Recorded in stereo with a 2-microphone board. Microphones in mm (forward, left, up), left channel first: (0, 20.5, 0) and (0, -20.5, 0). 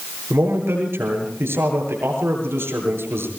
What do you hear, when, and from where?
0.3 s a man speaking: 75° right (ahead or behind), 7.5 m